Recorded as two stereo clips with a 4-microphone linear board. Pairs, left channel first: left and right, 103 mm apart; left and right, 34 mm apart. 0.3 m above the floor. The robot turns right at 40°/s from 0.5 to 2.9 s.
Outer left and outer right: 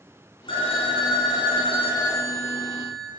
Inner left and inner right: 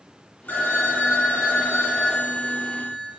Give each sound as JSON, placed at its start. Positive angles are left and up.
{"t": 0.5, "sound": "a phone ringing", "azimuth_deg": 70, "distance_m": 1.9}